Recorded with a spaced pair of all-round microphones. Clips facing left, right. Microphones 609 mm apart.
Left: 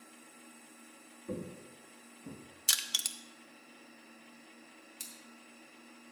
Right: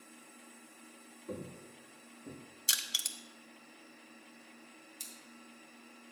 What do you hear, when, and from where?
1.3 s footsteps: 40° left (ahead or behind), 1.8 m; by 2.4 s 25° left (ahead or behind), 1.8 m
2.7 s crushing: 25° left (ahead or behind), 0.6 m
5.0 s scissors: 20° left (ahead or behind), 2.5 m